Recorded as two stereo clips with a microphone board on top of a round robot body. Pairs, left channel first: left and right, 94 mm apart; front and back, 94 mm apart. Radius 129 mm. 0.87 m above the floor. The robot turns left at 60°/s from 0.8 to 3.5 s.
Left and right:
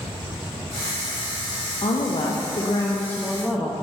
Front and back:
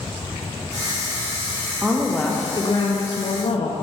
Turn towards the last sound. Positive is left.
turn(degrees=0)